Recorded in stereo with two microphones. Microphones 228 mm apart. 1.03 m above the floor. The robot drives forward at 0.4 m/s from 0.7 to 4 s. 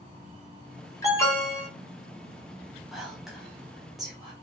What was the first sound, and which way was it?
An alarm, 15° left (ahead or behind).